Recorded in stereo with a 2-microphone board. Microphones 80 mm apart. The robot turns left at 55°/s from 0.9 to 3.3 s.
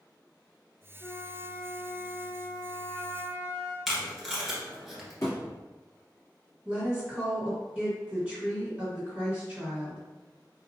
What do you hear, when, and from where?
1.0 s a flute: 130° right, 1.4 m; by 3.8 s 105° left, 1.4 m
3.9 s tape being pulled: centre (ahead or behind), 1.4 m
5.2 s a thud: 40° left (ahead or behind), 1.7 m
6.7 s a woman speaking: 5° right (ahead or behind), 1.7 m